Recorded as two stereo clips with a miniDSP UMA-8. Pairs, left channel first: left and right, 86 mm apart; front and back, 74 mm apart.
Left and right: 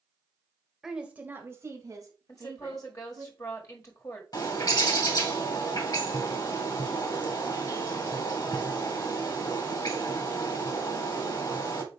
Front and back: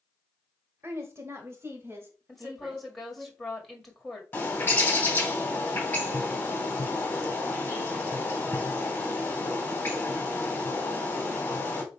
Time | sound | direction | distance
0.8 | a woman speaking | 175° right | 1.1 m
2.3 | a woman speaking | 85° left | 1.7 m
4.3 | a bird | 65° left | 2.5 m